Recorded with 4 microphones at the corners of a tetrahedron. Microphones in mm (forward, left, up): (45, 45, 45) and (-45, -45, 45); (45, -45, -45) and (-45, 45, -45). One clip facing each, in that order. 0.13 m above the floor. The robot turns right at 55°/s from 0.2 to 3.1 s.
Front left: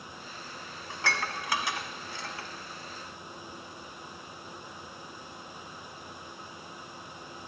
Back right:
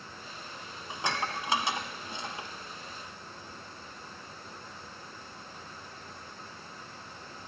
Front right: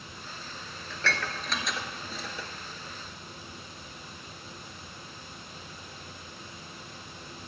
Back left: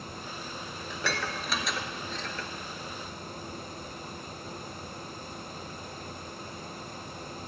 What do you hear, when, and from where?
0.9 s dishes clattering: straight behind, 0.8 m; by 2.5 s 95° right, 0.8 m